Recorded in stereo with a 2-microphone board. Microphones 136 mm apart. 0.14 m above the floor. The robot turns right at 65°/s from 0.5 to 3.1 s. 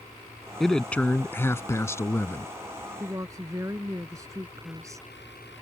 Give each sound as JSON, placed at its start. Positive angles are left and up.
{"t": 0.6, "sound": "a man speaking", "side_deg": 0}
{"t": 3.0, "sound": "a woman speaking", "side_deg": -25}